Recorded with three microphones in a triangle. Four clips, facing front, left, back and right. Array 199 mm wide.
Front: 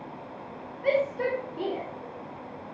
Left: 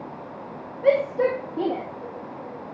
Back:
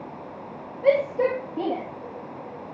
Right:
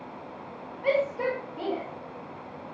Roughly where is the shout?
Behind left.